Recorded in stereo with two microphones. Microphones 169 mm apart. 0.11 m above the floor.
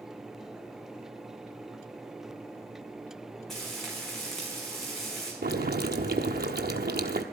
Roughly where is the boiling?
Right.